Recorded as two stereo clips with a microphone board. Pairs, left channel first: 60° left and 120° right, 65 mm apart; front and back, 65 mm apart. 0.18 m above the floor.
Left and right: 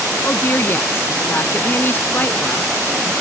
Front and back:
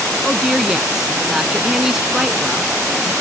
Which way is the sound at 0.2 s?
100° left.